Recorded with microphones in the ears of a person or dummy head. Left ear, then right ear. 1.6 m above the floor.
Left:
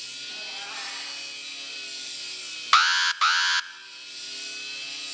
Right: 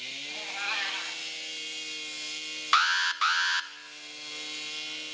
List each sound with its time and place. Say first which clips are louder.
0.3 s a cat meowing: right 5 dB; 70° right (ahead or behind), 3.5 m
2.7 s an alarm: left 4 dB; 10° left (ahead or behind), 0.8 m